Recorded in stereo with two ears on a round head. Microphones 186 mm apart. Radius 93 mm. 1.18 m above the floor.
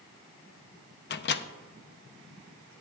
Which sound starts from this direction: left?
A microwave, at 1.1 s.